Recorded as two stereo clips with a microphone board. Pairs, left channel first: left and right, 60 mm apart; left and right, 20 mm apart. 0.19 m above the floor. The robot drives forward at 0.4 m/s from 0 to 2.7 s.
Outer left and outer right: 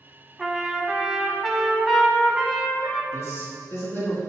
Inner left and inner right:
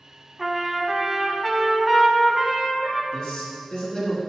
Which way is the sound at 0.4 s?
5° right (ahead or behind).